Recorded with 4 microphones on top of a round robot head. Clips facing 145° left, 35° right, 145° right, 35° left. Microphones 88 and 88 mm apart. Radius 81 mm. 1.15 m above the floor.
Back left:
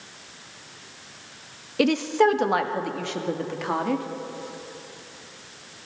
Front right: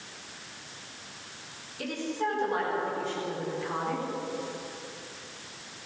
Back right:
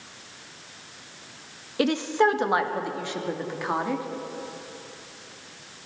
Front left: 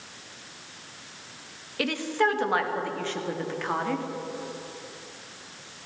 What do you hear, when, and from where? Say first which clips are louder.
1.8 s a woman speaking: back left 12 dB, back right 4 dB; 150° left, 1.5 m; by 4.0 s 135° left, 3 m